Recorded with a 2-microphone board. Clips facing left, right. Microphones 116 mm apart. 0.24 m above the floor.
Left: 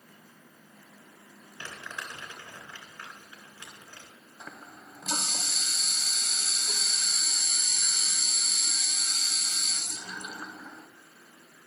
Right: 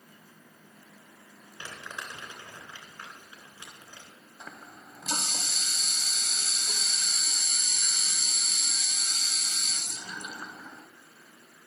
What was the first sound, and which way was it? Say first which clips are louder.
Crumpling: even; 15° right (ahead or behind).